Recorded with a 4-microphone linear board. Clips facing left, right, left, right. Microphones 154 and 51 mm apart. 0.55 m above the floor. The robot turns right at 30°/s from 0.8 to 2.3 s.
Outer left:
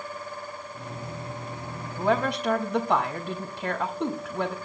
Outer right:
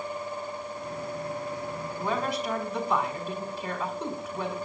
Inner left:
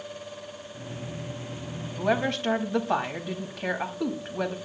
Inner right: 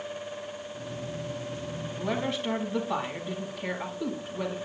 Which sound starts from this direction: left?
A woman speaking, at 2.0 s.